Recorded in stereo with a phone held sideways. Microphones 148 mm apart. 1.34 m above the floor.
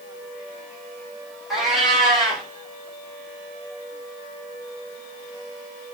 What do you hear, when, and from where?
1.5 s a cat meowing: centre (ahead or behind), 1.0 m